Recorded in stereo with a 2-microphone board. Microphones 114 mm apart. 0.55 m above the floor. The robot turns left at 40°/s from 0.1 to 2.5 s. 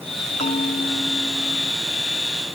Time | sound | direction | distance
0.4 | a bell | 85° left | ?